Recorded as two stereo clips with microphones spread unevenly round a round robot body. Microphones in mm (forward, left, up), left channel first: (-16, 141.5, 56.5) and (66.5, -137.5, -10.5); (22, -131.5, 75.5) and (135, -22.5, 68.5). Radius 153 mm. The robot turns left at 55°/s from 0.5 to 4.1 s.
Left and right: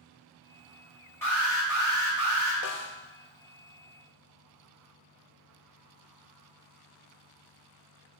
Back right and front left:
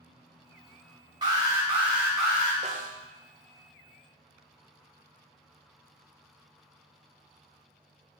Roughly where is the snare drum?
Left.